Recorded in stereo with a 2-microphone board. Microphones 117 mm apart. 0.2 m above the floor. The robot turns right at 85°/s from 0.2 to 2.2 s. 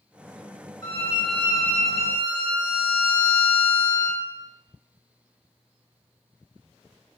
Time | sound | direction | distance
0.8 | a violin | 85° left | 1.8 m